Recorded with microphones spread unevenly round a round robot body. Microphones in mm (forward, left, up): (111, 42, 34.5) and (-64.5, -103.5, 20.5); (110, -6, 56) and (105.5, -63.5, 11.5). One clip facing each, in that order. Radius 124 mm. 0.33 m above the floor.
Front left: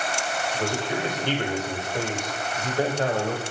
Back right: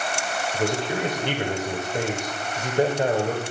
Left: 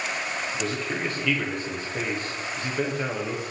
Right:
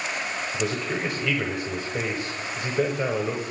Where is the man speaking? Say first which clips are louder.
Back right 4 dB, right 4 dB; 75° right, 1.7 m.